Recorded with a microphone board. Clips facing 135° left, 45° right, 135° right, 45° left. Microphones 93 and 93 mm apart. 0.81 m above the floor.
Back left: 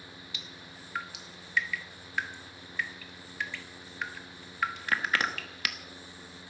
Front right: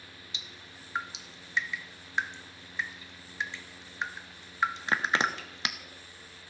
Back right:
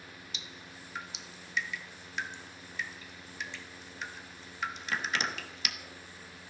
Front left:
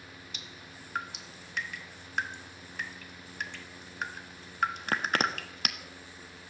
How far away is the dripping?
About 1.2 m.